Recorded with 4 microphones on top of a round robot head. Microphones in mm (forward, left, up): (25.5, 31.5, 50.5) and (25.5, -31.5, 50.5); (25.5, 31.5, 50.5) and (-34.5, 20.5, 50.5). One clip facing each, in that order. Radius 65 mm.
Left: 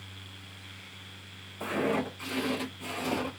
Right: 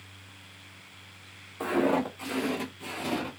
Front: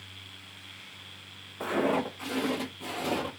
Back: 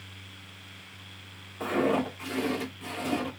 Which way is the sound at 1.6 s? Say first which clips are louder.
Right 4 dB, back 1 dB; 65° right.